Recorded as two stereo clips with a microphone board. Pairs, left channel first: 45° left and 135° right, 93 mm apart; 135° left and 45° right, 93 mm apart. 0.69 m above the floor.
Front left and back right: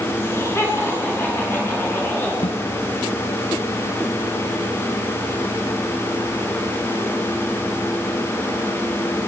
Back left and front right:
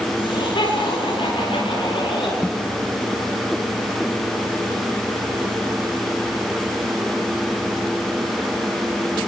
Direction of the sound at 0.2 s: 105° left.